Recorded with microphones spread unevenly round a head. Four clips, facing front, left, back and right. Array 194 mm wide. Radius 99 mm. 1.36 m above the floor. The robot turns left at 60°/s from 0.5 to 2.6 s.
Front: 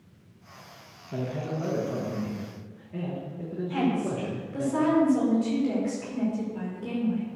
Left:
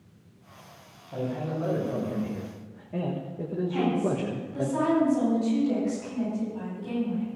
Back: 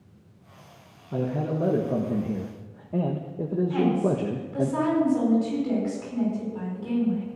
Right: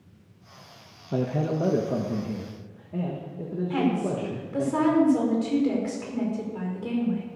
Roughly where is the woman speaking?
Right.